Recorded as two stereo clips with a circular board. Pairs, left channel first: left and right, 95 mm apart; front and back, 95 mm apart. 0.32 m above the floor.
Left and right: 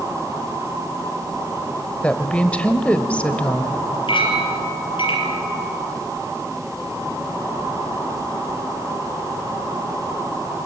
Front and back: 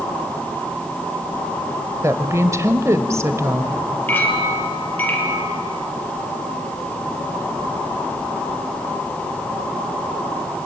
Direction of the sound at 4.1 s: 70° left.